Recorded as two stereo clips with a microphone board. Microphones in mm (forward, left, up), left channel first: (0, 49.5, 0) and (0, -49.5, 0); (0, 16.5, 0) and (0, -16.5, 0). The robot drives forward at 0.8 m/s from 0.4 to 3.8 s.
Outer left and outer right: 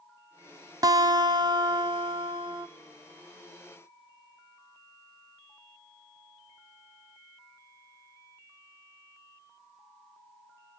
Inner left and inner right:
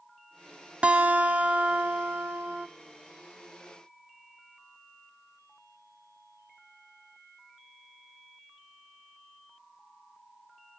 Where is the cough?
No cough in this recording.